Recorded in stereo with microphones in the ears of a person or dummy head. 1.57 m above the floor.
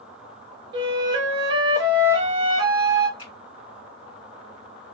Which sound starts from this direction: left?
A finger snap, at 3.2 s.